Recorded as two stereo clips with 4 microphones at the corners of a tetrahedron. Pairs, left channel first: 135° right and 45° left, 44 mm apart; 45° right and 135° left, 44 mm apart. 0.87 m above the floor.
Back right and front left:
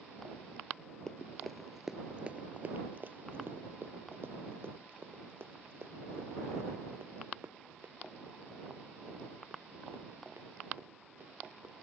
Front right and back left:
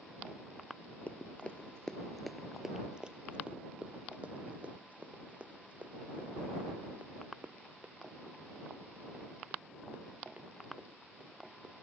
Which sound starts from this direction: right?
Running footsteps, at 1.1 s.